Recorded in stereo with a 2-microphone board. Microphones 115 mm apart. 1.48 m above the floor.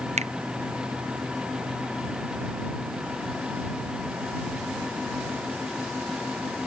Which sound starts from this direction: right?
A finger snap, at 0.2 s.